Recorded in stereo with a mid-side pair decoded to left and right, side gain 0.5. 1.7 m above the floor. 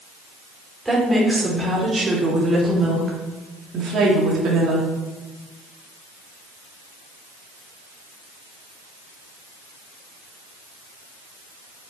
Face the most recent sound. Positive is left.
turn(degrees=-70)